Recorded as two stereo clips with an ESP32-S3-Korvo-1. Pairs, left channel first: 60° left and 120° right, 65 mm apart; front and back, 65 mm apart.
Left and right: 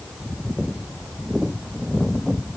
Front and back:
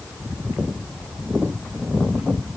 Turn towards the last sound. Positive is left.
No sound to turn to.